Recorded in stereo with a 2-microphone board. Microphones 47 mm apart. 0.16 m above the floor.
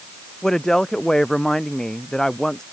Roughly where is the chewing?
I don't hear chewing.